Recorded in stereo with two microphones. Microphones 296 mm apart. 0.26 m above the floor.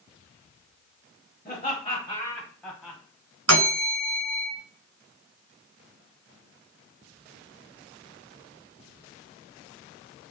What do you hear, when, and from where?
1.4 s laughter: 30° left (ahead or behind), 1.0 m; by 3.0 s 5° right (ahead or behind), 1.4 m
3.5 s a bell: 60° right (ahead or behind), 1.9 m